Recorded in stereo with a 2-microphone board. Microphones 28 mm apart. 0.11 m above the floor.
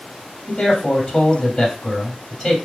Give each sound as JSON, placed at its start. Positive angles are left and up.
{"t": 0.5, "sound": "a man speaking", "side_deg": 0, "distance_m": 2.5}